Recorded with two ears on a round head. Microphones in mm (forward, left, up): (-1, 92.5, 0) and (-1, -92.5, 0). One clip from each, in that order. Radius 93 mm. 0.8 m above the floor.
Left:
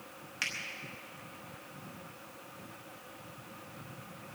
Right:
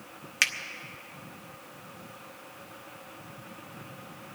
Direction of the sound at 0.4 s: 50° right (ahead or behind).